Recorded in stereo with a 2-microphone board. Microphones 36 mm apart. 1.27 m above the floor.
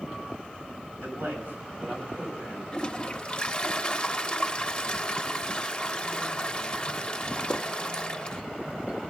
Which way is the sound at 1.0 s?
55° right (ahead or behind).